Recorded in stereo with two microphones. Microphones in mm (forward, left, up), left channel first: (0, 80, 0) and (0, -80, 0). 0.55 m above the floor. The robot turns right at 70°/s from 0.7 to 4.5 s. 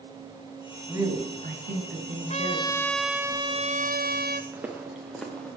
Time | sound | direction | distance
0.9 | a woman speaking | 165° right | 4.5 m
2.3 | a trumpet | 130° left | 1.0 m
4.5 | footsteps | 10° right (ahead or behind) | 3.5 m